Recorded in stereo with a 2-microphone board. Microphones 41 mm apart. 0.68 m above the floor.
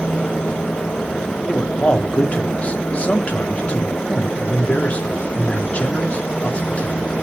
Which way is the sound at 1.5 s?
35° left (ahead or behind).